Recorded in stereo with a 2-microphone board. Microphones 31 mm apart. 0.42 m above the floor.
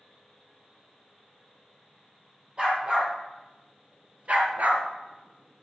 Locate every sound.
2.6 s a dog barking: 35° right (ahead or behind), 4 m; by 4.8 s 65° right (ahead or behind), 2 m